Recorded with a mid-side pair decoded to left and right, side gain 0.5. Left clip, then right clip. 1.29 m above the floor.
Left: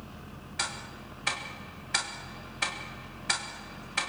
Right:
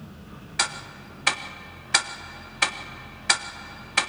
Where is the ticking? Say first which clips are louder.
Right 7 dB; 50° right, 1.8 m.